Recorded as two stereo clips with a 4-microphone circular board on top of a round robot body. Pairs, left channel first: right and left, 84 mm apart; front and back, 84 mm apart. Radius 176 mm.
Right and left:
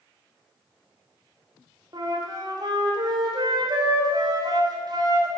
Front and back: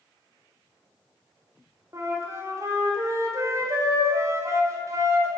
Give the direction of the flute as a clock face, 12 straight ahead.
8 o'clock.